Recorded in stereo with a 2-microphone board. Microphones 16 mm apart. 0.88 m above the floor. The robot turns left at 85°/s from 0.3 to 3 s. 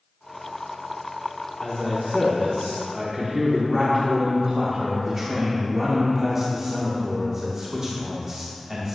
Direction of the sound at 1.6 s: 10° left (ahead or behind).